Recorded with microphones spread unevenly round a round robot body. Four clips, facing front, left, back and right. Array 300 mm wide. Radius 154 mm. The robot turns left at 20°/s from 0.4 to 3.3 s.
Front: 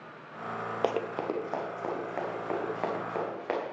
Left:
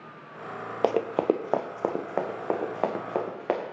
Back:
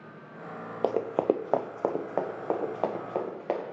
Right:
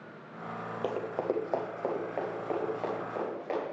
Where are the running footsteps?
95° left, 0.5 m; by 3.6 s 90° left, 3.5 m.